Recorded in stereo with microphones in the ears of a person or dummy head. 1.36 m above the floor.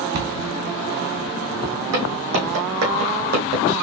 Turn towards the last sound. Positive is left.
turn(degrees=-45)  # may be behind; listen again after turning